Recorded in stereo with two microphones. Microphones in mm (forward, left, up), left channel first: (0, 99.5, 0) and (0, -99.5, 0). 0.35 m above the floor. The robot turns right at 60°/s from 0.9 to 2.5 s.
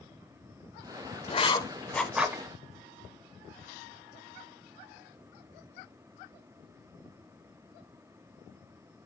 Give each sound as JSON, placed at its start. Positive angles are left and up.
{"t": 1.3, "sound": "writing", "side_deg": 30, "distance_m": 0.5}